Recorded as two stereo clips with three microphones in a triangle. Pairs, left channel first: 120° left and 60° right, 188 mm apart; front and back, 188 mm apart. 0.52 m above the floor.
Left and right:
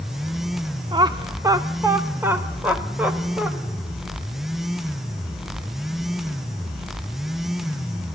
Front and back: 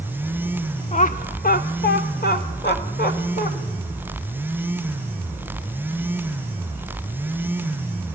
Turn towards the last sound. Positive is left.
turn(degrees=25)